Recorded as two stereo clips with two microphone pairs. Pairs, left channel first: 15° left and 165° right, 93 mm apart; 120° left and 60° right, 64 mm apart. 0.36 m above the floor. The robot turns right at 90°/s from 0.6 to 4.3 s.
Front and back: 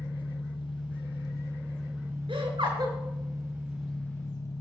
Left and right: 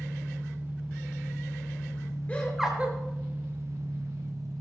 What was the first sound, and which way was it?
An engine running, 5° right.